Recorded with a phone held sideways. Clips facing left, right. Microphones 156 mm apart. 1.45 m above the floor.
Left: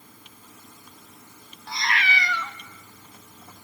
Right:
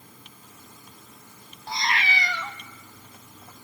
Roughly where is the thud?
No thud in this recording.